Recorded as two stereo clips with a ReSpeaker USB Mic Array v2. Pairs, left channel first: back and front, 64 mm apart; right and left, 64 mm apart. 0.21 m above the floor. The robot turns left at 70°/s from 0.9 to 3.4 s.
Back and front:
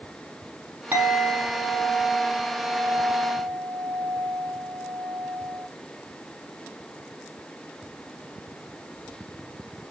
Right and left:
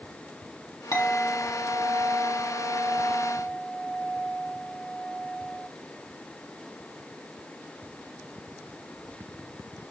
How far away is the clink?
About 5 m.